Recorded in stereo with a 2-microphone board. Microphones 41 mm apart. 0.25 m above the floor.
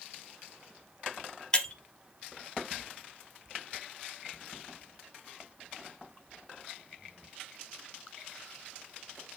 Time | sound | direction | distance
1.5 | breaking glass | 25° left (ahead or behind) | 1.0 m